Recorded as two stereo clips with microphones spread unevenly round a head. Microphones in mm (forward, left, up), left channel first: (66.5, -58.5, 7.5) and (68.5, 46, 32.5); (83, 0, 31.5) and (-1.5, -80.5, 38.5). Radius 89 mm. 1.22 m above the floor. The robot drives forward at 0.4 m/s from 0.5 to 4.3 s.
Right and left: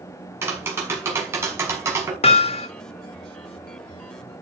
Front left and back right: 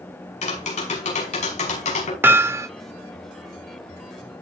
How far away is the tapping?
About 6 m.